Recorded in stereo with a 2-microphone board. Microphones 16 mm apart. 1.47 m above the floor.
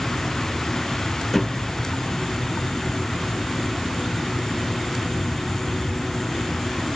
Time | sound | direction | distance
1.3 | a thud | 10° left (ahead or behind) | ?